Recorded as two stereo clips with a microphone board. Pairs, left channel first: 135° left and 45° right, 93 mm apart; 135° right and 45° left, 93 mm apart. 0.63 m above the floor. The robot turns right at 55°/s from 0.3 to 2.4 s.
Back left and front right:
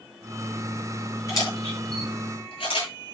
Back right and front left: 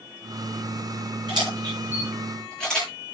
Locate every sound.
1.3 s a camera shutter: 80° left, 10 m; by 2.9 s 140° left, 10 m